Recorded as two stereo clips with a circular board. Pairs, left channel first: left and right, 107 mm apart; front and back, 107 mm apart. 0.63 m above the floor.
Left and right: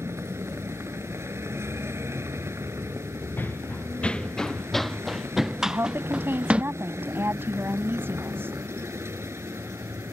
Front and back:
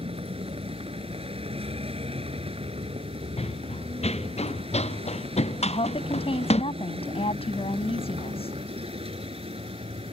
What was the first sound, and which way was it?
A vehicle, 155° right.